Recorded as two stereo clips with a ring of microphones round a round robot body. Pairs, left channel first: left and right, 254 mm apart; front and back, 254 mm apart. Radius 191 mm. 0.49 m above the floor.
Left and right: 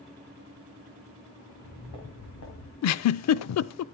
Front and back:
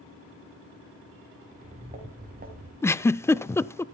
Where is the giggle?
80° left, 0.5 m.